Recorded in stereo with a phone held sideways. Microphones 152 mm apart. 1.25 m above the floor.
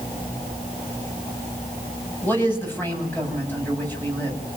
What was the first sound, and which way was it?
A man speaking, 15° left (ahead or behind).